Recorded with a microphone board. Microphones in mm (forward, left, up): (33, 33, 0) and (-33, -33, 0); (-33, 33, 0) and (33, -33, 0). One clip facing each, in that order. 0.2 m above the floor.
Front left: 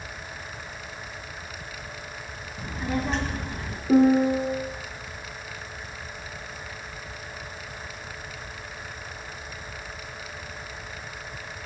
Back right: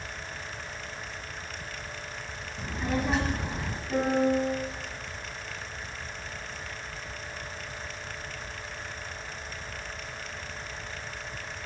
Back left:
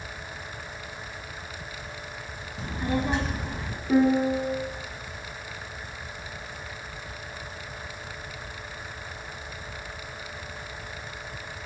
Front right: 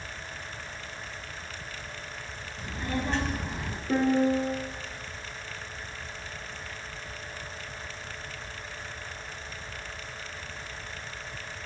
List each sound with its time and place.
2.6 s a child speaking: 125° left, 1.0 m; by 3.8 s 95° right, 0.9 m
3.9 s a piano: 45° left, 1.5 m